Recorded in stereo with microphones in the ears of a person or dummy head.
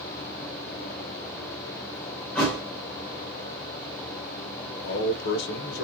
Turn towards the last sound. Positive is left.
turn(degrees=65)  # may be behind; listen again after turning